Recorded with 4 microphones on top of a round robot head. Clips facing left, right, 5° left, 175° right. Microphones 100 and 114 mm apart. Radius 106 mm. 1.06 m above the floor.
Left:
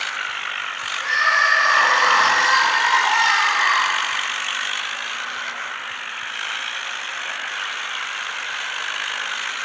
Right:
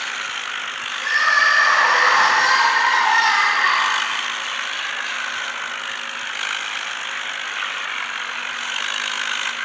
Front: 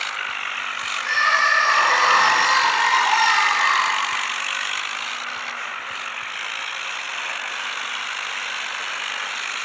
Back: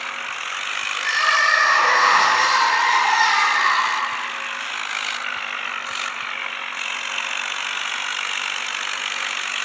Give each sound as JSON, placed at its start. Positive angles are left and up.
{"t": 1.0, "sound": "crying", "azimuth_deg": 170, "distance_m": 1.9}